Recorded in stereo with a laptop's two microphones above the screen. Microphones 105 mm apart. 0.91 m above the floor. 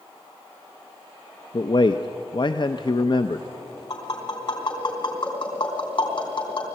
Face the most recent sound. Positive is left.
turn(degrees=55)  # may be behind; listen again after turning